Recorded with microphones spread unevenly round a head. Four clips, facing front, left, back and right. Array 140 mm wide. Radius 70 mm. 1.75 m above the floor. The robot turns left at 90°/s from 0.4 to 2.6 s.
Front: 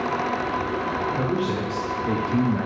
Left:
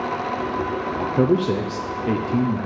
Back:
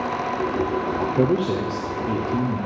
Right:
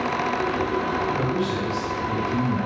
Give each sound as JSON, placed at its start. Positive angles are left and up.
{"t": 1.0, "sound": "a man speaking", "azimuth_deg": 145, "distance_m": 0.6}